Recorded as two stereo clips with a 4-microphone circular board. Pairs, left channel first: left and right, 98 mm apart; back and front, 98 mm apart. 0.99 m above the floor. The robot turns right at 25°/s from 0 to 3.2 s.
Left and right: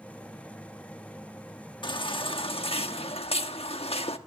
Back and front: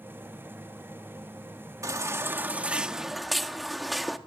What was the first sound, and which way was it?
A baby crying, 55° left.